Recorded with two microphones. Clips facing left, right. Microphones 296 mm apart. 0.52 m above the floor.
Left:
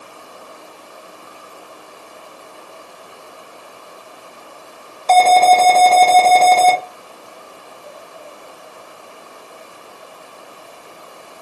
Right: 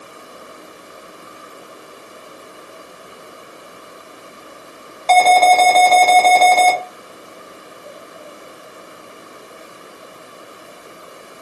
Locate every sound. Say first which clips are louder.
5.1 s an alarm: left 1 dB; 35° left (ahead or behind), 1.1 m